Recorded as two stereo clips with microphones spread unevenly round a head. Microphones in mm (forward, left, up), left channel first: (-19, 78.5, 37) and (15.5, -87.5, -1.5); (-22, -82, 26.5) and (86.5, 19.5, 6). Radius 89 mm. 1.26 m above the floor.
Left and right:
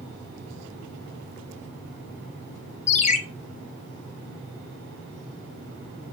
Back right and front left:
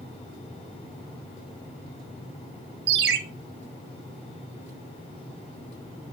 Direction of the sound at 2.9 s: 65° left.